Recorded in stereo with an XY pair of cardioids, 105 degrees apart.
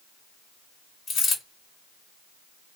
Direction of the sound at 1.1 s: 50° left.